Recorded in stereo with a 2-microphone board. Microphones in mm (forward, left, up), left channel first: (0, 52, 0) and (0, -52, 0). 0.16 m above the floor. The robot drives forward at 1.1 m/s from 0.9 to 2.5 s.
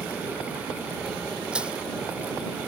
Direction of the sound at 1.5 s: 10° right (ahead or behind).